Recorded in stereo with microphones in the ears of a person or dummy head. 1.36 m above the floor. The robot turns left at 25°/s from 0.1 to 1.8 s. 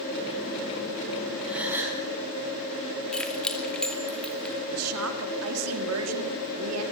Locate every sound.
1.4 s a gasp: 5° left (ahead or behind), 5.5 m; by 2.0 s 5° right (ahead or behind), 5.5 m
3.1 s keys jangling: 5° right (ahead or behind), 2.5 m
4.7 s a woman speaking: 80° right, 3 m